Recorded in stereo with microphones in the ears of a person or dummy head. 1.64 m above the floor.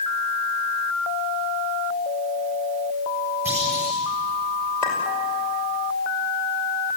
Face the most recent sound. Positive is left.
turn(degrees=15)  # may be behind; listen again after turning